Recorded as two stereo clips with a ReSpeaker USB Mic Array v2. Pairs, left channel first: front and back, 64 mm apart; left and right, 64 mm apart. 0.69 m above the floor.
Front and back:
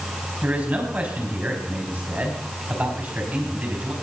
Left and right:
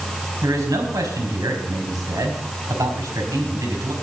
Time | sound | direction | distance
0.4 | a man speaking | 115° right | 5 m